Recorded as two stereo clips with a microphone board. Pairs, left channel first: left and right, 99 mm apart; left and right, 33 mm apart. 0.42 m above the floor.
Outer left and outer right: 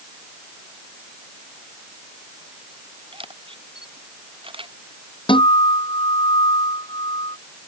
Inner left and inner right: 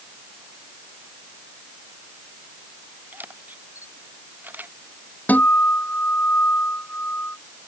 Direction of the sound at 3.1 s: 65° right (ahead or behind).